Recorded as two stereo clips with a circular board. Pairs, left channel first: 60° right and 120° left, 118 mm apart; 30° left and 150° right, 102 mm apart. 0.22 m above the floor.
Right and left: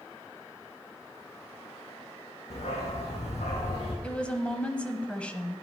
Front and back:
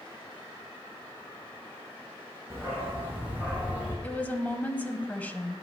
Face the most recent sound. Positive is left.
turn(degrees=-5)